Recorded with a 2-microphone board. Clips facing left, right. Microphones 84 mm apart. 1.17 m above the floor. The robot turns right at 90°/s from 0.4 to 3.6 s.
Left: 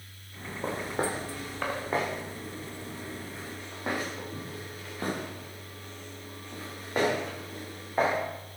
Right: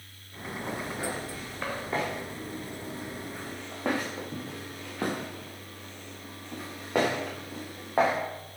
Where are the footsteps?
35° left (ahead or behind), 4 m; by 8.2 s 60° right (ahead or behind), 5.5 m.